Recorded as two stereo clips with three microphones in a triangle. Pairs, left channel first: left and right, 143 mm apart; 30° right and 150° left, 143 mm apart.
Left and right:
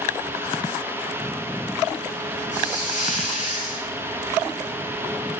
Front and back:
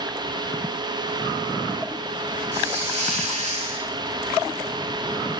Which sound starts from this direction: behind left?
A hiss, at 2.5 s.